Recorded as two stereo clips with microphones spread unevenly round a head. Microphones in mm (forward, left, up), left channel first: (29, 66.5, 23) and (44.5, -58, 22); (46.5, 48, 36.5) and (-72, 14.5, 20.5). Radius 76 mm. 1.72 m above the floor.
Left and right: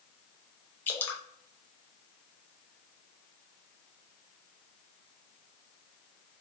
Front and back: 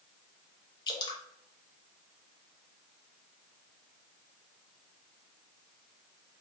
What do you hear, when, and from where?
0.9 s dripping: 30° left, 0.7 m